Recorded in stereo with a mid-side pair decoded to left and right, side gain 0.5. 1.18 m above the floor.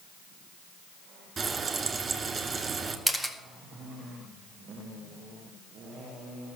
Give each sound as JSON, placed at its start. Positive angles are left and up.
{"t": 1.4, "sound": "frying", "azimuth_deg": -35, "distance_m": 2.0}
{"t": 3.1, "sound": "a camera shutter", "azimuth_deg": 5, "distance_m": 1.8}